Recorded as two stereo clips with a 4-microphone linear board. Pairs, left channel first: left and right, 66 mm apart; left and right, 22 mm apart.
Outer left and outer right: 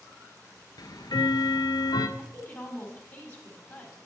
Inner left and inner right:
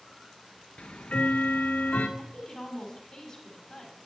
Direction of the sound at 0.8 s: 85° left.